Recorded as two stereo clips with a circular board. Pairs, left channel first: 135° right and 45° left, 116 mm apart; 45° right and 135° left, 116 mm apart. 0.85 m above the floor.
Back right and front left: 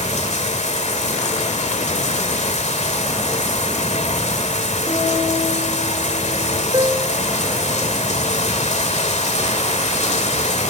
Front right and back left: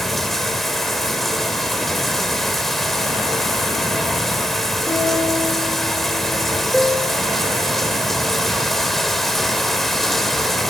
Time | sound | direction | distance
0.0 | running water | 135° right | 2.0 m
4.9 | a guitar | 95° right | 8 m
6.7 | a piano | 35° left | 1.0 m